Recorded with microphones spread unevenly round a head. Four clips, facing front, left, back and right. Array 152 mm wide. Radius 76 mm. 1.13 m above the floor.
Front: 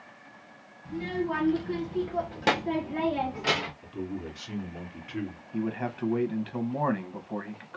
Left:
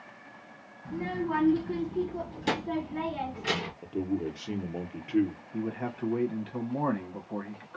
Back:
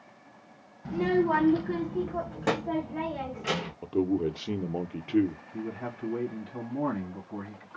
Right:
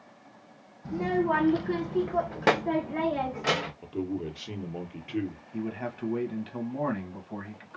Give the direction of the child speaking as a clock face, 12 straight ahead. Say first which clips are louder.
Right 5 dB, back 6 dB; 4 o'clock.